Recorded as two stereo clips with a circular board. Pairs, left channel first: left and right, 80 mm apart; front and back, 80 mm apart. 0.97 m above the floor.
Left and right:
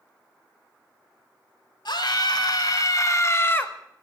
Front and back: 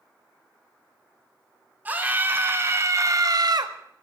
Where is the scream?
110° left, 3 m; by 3.7 s 160° left, 1.5 m.